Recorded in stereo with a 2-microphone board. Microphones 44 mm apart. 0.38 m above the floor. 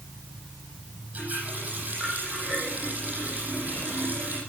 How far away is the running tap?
About 9 m.